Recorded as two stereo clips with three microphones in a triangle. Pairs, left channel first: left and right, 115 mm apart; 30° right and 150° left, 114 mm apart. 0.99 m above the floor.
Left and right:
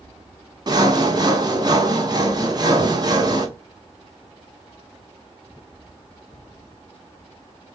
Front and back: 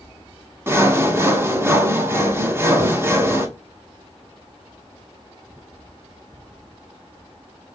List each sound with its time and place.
0.7 s sawing: 140° right, 0.9 m